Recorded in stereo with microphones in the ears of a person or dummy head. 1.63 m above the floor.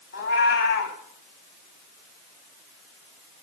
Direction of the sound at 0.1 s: 50° left (ahead or behind).